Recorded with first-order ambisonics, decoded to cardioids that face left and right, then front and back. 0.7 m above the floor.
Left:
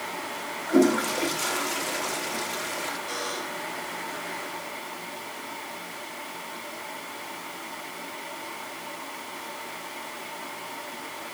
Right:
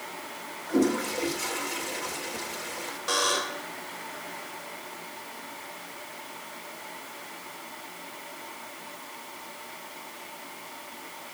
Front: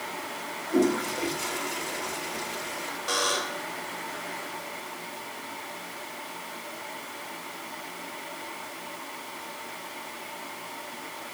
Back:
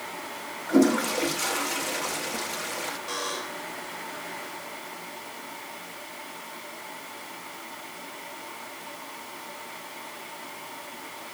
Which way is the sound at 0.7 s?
145° left.